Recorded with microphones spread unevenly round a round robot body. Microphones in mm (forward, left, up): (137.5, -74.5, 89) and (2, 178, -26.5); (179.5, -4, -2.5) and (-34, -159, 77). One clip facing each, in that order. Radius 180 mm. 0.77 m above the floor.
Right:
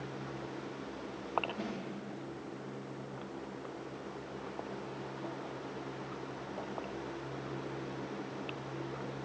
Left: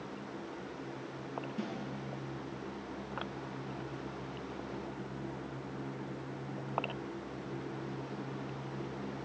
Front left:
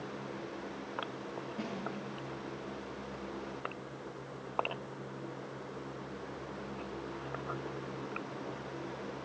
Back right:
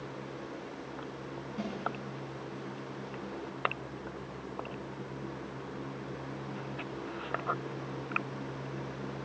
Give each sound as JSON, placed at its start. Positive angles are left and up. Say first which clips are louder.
{"t": 1.6, "sound": "a snare drum", "louder": "even, back right 3 dB", "azimuth_deg": 180, "distance_m": 6.5}